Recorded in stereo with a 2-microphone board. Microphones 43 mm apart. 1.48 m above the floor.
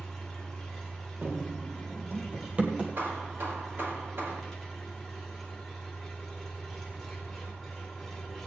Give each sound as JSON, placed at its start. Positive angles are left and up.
{"t": 0.0, "sound": "an engine running", "side_deg": 10, "distance_m": 2.5}
{"t": 1.2, "sound": "running footsteps", "side_deg": -55, "distance_m": 2.5}
{"t": 3.0, "sound": "hammering", "side_deg": -45, "distance_m": 4.0}